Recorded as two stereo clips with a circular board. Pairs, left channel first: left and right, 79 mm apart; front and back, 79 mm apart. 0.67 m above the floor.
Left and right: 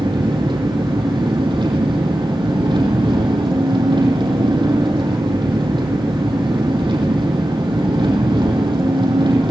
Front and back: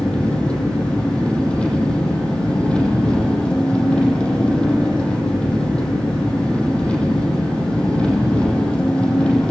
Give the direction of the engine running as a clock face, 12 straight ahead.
3 o'clock.